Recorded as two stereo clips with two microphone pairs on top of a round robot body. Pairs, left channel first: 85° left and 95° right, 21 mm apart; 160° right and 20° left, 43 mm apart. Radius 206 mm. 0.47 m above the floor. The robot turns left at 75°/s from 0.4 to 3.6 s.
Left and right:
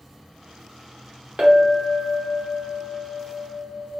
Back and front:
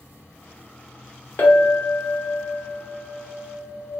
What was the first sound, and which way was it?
A clink, 120° right.